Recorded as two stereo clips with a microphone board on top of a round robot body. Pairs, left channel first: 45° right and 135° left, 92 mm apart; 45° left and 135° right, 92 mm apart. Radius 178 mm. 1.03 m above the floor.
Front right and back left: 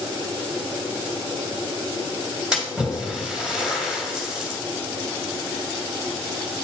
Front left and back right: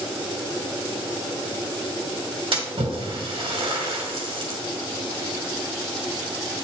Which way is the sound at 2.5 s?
145° right.